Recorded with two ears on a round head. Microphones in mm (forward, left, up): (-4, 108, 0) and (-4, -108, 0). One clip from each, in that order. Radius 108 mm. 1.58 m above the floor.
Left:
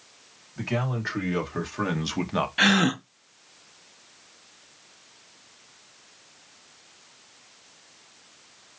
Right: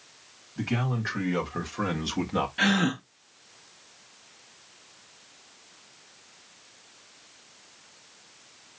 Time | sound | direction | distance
0.6 | a man speaking | 10° left (ahead or behind) | 2 m
2.6 | a gasp | 30° left (ahead or behind) | 0.6 m